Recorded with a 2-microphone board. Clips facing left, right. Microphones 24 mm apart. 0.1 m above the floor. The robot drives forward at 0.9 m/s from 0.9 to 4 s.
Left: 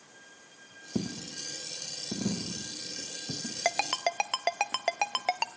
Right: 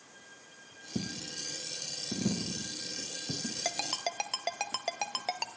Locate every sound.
0.9 s a dropped coin: 60° left (ahead or behind), 0.8 m; by 3.5 s 15° left (ahead or behind), 2.5 m
3.6 s a ringtone: 35° left (ahead or behind), 0.6 m; by 5.5 s 30° left (ahead or behind), 0.8 m